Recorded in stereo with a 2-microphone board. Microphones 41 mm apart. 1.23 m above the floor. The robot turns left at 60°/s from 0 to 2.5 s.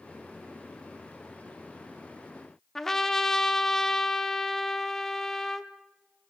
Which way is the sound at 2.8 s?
10° left (ahead or behind).